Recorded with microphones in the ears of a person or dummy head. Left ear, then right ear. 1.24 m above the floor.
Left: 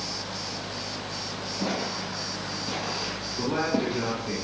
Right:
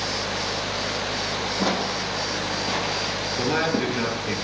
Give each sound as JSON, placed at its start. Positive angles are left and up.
{"t": 1.6, "sound": "footsteps", "side_deg": -55, "distance_m": 3.0}
{"t": 3.4, "sound": "a man speaking", "side_deg": -45, "distance_m": 7.5}